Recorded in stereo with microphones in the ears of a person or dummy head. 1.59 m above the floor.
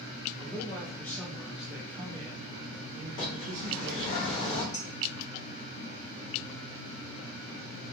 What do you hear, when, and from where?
0.4 s a man speaking: 20° left (ahead or behind), 1.4 m; by 4.2 s 70° right (ahead or behind), 1.4 m
3.2 s a bird: 40° left (ahead or behind), 0.8 m
4.7 s dishes clattering: 20° left (ahead or behind), 1.5 m